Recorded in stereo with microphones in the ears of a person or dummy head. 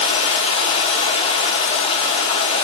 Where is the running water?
40° left (ahead or behind), 1.0 m.